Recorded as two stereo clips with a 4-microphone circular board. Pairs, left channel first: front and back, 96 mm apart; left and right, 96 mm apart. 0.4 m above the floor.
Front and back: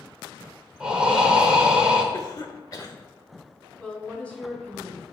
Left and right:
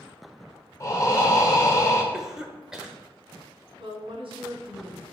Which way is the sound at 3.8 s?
80° right.